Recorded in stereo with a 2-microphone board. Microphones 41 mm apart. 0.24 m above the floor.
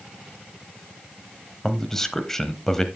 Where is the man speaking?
10° left (ahead or behind), 0.9 m.